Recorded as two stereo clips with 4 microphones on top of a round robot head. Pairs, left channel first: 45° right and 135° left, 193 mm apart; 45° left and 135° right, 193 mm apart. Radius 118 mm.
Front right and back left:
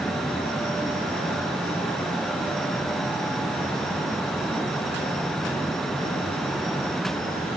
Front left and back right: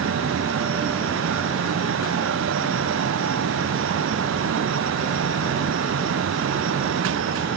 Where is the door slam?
I don't hear a door slam.